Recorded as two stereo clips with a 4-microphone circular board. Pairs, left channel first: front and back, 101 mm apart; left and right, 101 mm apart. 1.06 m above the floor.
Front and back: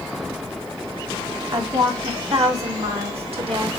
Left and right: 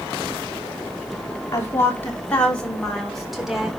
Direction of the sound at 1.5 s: 150° left.